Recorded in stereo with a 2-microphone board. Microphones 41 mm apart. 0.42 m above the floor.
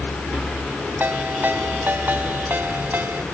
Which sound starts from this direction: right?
A ringtone, at 1.0 s.